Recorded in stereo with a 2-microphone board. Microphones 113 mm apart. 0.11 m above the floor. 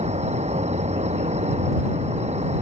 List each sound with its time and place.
0.0 s an insect: 80° right